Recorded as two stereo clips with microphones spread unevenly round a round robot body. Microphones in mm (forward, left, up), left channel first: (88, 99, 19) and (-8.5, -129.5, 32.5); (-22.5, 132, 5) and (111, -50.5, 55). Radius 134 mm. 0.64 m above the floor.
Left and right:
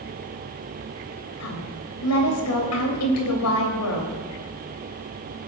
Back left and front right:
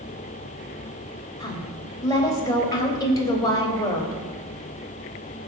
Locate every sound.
1.4 s a woman speaking: 55° left, 3.5 m